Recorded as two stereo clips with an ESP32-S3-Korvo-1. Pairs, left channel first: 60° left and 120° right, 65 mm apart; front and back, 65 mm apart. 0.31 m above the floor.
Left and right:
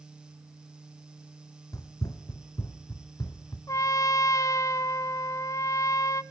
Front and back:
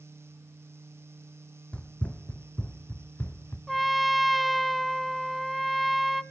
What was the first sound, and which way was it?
Running footsteps, 70° left.